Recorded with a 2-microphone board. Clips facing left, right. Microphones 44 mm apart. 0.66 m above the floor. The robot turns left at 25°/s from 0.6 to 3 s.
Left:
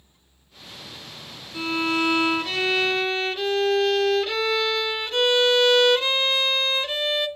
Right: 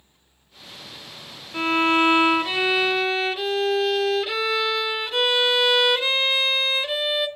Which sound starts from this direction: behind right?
A violin, at 1.5 s.